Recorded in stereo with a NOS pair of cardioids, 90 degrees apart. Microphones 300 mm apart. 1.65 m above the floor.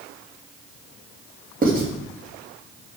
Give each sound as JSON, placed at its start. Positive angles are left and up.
{"t": 1.6, "sound": "writing", "azimuth_deg": -30, "distance_m": 3.5}